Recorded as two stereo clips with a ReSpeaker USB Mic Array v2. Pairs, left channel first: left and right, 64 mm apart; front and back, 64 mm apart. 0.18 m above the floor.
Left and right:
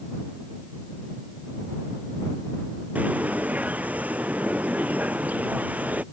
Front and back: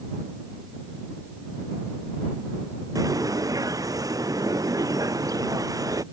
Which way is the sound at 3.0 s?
155° right.